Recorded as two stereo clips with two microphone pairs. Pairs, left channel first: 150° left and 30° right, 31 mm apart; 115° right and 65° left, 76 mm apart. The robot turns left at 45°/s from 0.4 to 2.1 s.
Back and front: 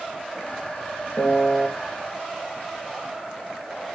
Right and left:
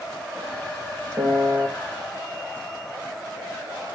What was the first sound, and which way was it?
A piano, 110° left.